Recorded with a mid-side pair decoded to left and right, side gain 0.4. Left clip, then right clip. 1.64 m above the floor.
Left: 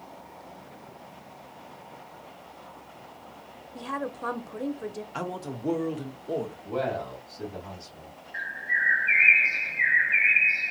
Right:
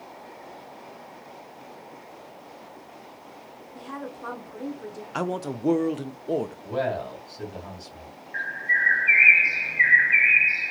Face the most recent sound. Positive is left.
turn(degrees=-55)